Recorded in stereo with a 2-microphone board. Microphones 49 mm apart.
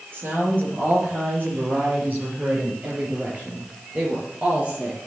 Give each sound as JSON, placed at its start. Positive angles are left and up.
{"t": 0.1, "sound": "a woman speaking", "side_deg": -50, "distance_m": 6.0}